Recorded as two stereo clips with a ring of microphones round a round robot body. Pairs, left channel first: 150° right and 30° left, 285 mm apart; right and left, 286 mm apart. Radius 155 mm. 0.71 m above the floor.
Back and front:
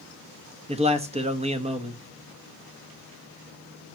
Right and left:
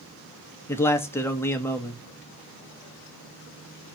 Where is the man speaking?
15° right, 1.2 m.